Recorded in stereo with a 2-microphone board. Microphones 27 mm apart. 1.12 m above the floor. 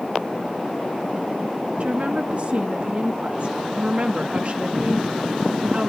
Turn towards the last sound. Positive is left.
turn(degrees=-40)  # may be behind; listen again after turning